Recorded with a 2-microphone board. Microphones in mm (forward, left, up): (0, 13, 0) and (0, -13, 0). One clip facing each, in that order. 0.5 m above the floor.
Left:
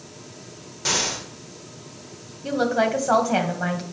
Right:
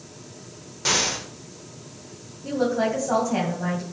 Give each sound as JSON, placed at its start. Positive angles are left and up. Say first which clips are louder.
{"t": 0.8, "sound": "an explosion", "louder": "right 1 dB", "side_deg": -5, "distance_m": 1.6}
{"t": 2.4, "sound": "a woman speaking", "louder": "left 2 dB", "side_deg": 70, "distance_m": 2.5}